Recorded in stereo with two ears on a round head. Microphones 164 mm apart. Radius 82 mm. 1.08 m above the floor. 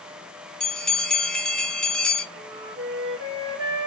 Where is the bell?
5° left (ahead or behind), 0.6 m.